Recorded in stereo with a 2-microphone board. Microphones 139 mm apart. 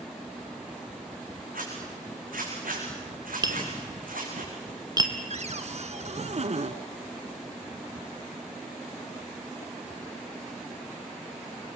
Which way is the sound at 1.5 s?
85° right.